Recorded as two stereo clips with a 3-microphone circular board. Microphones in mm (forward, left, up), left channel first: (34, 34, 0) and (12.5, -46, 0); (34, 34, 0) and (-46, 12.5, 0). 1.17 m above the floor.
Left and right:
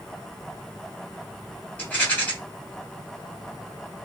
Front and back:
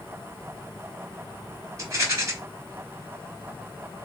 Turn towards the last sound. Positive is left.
turn(degrees=145)